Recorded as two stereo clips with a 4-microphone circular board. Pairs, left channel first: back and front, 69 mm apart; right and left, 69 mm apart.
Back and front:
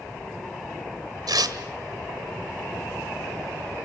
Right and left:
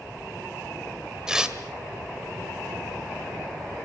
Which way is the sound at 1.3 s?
10° left.